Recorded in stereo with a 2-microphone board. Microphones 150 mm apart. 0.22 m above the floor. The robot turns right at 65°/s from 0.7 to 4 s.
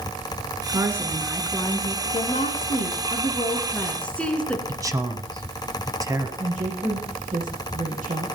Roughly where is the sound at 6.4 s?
Right.